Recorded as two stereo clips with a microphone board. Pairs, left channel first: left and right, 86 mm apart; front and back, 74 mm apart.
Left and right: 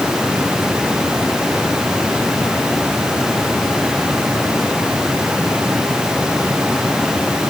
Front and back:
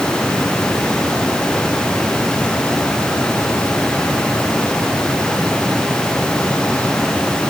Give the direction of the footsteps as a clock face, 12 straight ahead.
No footsteps in this recording.